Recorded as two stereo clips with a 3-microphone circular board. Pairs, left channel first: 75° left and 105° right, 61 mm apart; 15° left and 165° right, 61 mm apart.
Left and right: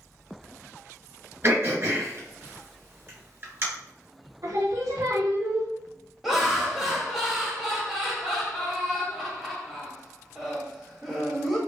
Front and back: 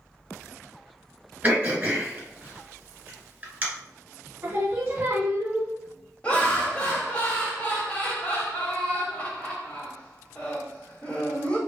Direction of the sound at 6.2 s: 20° right.